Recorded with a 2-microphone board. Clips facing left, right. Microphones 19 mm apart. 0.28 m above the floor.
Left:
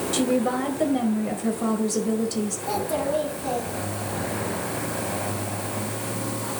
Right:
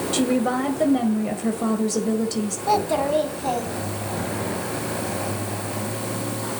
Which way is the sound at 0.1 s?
10° right (ahead or behind).